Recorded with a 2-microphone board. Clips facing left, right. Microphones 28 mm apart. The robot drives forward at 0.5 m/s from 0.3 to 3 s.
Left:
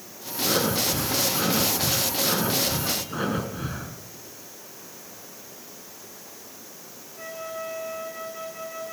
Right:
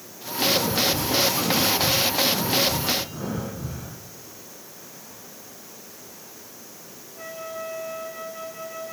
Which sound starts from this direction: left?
Breathing, at 0.4 s.